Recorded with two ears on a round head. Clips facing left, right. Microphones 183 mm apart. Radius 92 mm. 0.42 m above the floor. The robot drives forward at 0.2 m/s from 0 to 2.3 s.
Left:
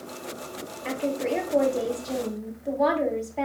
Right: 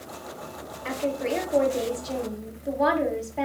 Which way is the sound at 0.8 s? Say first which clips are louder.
Even; 5° right (ahead or behind).